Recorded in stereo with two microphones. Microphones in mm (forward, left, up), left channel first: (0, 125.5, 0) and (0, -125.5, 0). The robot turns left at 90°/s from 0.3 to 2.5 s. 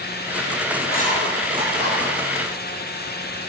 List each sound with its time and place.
0.8 s writing: 50° left (ahead or behind), 2 m; by 2.1 s 60° right (ahead or behind), 2 m